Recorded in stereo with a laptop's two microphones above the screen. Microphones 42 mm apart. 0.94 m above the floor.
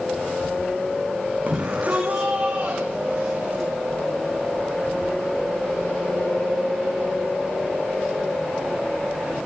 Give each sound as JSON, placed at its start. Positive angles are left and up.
{"t": 1.5, "sound": "a shout", "side_deg": -40, "distance_m": 8.0}